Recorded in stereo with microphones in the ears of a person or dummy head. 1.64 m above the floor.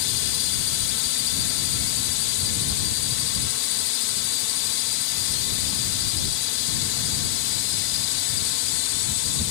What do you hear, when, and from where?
0.0 s a drone: 70° left (ahead or behind)